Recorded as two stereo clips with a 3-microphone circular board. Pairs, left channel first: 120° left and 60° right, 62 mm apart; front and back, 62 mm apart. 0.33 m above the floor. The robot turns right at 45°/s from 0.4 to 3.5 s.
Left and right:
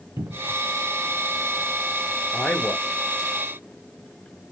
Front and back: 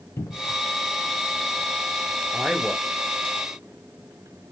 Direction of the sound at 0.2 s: 25° right.